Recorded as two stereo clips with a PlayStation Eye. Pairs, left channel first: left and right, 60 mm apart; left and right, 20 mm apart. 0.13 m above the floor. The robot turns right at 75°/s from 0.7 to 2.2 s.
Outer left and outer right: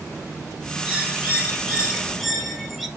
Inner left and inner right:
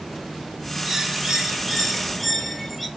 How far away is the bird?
About 0.6 m.